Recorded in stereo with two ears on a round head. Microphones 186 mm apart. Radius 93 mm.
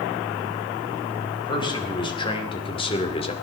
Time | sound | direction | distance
1.4 | a man speaking | 25° left (ahead or behind) | 4 m